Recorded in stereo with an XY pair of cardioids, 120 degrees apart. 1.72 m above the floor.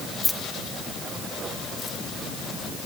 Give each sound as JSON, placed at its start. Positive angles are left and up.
{"t": 0.2, "sound": "keys jangling", "azimuth_deg": 15, "distance_m": 2.5}